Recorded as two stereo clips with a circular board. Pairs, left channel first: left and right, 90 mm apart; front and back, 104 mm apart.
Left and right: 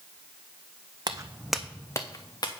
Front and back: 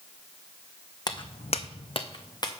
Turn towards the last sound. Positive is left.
turn(degrees=50)